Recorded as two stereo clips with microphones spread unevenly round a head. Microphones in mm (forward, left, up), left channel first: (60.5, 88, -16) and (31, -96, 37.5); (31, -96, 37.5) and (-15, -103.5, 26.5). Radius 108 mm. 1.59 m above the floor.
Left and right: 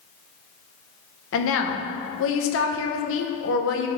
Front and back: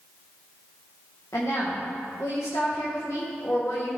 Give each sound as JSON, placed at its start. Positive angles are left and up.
{"t": 1.3, "sound": "a woman speaking", "azimuth_deg": 65, "distance_m": 1.1}